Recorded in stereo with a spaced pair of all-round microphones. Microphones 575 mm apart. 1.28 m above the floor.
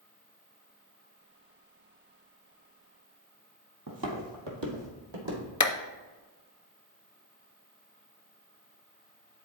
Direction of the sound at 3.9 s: 35° right (ahead or behind).